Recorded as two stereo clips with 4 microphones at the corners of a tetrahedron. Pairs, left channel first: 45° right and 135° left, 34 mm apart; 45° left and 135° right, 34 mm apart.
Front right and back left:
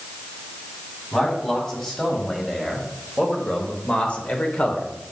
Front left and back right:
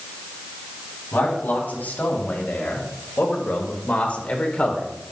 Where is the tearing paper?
I don't hear tearing paper.